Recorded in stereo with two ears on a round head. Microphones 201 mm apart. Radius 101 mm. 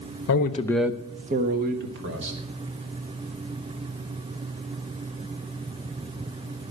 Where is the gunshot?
No gunshot in this recording.